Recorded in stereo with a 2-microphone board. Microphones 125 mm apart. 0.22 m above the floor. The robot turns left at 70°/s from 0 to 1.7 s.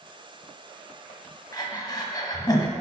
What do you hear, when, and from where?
1.5 s breathing: 30° left (ahead or behind), 1.2 m